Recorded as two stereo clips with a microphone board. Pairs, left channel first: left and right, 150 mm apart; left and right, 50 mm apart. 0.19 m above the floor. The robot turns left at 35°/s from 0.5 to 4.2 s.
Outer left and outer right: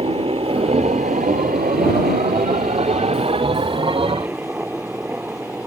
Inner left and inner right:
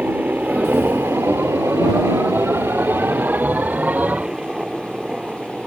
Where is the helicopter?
40° right (ahead or behind); by 5.7 s 10° right (ahead or behind).